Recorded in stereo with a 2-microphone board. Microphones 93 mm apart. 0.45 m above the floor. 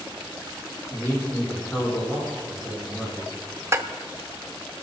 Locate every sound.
0.9 s a man speaking: 20° left (ahead or behind), 6 m
3.7 s dishes clattering: 30° right (ahead or behind), 0.6 m